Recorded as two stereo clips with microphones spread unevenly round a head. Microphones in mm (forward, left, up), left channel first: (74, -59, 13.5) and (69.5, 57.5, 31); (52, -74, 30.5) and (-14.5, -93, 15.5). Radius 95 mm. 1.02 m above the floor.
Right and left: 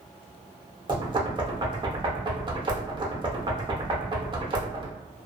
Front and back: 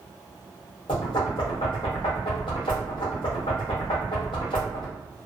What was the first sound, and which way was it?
Knocking, 45° left.